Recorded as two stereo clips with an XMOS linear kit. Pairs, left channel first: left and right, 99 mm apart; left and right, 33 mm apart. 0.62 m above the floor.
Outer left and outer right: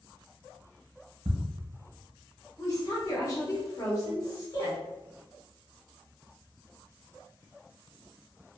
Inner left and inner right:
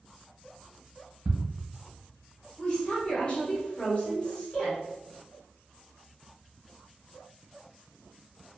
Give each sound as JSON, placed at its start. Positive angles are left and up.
{"t": 1.2, "sound": "ticking", "side_deg": -70, "distance_m": 0.9}
{"t": 2.6, "sound": "a woman speaking", "side_deg": 35, "distance_m": 1.0}